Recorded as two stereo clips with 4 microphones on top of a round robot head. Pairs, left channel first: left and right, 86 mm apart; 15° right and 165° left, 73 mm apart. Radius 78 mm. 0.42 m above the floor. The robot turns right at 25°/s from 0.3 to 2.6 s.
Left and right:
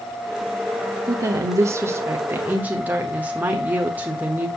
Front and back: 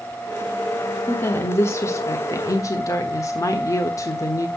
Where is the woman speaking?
65° right, 1.3 m; by 4.5 s 25° right, 1.3 m.